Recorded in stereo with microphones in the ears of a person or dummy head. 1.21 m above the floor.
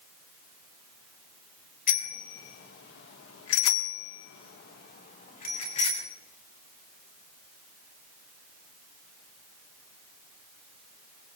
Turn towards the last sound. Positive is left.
turn(degrees=30)  # may be behind; listen again after turning